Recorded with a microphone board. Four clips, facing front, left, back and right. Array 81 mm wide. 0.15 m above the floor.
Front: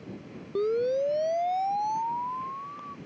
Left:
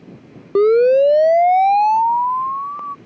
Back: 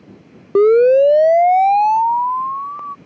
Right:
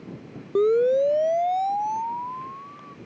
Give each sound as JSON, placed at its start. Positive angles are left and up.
{"t": 0.6, "sound": "a siren", "azimuth_deg": 155}